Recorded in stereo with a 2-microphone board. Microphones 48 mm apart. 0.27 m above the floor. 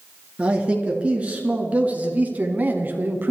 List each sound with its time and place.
0.4 s a man speaking: 25° right (ahead or behind), 3.5 m; by 3.3 s 45° right (ahead or behind), 1.9 m